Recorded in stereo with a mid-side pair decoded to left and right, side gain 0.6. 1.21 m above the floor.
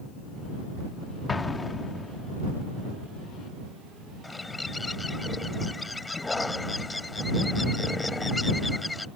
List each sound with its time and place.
1.3 s an explosion: 20° left
4.2 s a bird: 15° left